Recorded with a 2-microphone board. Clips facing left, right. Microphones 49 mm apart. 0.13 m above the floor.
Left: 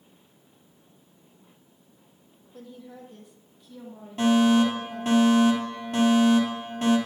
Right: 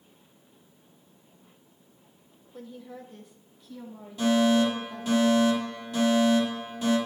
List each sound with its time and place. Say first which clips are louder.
2.5 s a woman speaking: right 1 dB; centre (ahead or behind), 4 m; by 5.2 s 20° left (ahead or behind), 4.5 m
4.2 s a fire alarm: left 2 dB; 50° left (ahead or behind), 6 m